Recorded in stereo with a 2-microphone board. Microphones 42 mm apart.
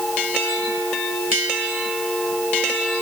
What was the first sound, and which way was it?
Only background noise.